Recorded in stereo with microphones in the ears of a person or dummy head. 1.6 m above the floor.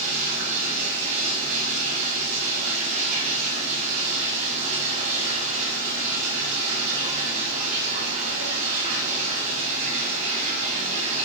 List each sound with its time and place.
0.0 s running water: 45° right (ahead or behind), 5.5 m